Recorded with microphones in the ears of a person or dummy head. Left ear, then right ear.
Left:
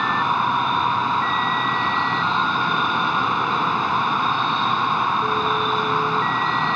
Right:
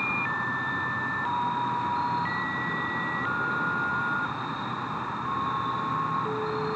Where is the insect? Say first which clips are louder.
Left 8 dB; 65° left (ahead or behind).